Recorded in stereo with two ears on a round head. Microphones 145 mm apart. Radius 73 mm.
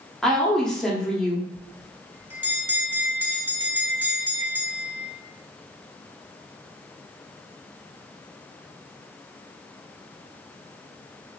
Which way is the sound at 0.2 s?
Centre (ahead or behind).